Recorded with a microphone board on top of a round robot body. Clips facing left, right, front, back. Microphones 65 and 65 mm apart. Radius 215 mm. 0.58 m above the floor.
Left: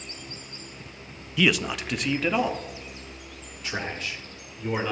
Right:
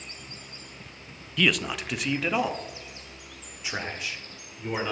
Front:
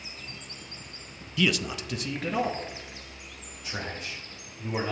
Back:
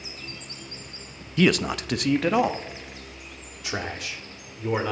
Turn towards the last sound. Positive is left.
turn(degrees=-170)